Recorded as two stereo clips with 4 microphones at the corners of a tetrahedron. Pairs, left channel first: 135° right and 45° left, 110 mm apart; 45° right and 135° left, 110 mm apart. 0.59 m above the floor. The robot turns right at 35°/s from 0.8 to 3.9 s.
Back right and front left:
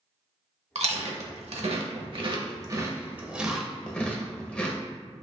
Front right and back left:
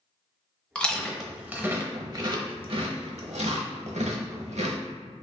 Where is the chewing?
35° left, 0.8 m; by 4.8 s 145° left, 0.8 m.